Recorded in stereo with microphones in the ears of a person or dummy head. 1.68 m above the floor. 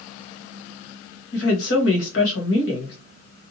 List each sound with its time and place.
1.3 s a woman speaking: 65° left (ahead or behind), 1.3 m